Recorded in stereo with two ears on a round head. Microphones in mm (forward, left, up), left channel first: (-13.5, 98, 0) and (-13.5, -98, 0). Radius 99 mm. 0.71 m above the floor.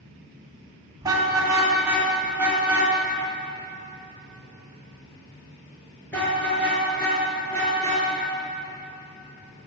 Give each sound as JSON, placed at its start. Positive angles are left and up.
{"t": 1.0, "sound": "a car horn", "side_deg": -15, "distance_m": 3.0}